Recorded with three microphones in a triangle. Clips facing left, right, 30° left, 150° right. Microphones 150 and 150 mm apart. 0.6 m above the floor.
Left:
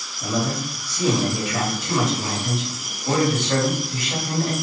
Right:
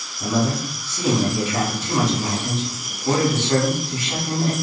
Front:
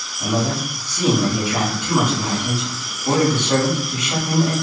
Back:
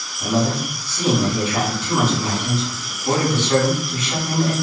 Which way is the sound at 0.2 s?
35° right.